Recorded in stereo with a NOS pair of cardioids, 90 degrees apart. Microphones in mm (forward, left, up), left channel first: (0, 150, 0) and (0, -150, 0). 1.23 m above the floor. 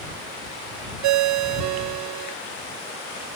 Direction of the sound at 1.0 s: 70° right.